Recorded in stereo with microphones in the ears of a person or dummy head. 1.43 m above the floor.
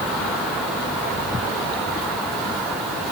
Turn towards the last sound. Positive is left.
No sound to turn to.